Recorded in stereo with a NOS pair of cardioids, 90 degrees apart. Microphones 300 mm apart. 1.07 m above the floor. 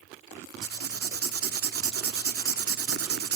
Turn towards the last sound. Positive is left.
turn(degrees=-50)